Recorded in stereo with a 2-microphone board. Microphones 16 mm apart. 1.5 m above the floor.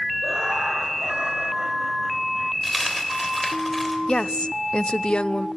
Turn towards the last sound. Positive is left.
turn(degrees=75)  # may be behind; listen again after turning